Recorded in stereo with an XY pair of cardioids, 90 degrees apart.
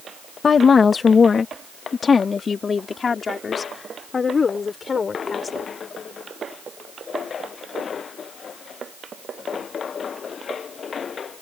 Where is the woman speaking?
45° left; by 5.7 s 40° left.